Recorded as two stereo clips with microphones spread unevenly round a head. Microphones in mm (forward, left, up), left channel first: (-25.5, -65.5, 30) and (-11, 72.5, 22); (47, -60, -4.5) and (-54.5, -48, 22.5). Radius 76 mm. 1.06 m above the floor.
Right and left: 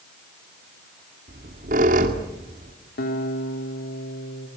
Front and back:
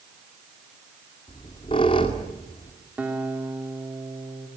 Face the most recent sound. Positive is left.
turn(degrees=-110)